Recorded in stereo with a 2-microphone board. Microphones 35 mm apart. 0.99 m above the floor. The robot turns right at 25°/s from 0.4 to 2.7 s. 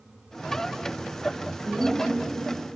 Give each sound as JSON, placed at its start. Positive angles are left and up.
{"t": 1.6, "sound": "a woman speaking", "side_deg": 75, "distance_m": 2.5}